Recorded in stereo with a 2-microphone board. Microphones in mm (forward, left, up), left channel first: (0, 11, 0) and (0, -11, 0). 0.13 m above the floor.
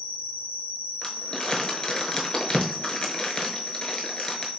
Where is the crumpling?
35° left (ahead or behind), 0.8 m.